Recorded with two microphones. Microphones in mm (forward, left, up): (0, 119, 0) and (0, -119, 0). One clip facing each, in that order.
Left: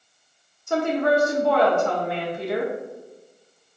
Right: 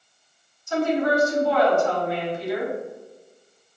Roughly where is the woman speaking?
Left.